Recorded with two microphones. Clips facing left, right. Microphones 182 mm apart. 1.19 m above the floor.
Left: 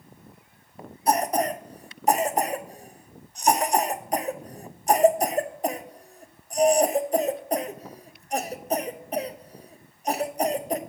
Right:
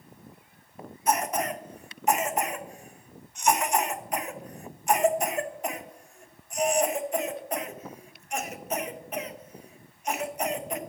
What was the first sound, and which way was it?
A cough, 35° left (ahead or behind).